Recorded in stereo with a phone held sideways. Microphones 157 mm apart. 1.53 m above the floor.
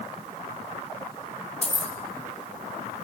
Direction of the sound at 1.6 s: 40° left (ahead or behind).